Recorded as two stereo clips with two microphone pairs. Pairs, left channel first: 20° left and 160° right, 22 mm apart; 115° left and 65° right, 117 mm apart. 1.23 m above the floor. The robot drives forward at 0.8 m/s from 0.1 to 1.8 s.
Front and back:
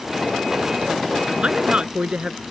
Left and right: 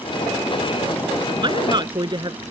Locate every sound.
1.4 s a woman speaking: 115° right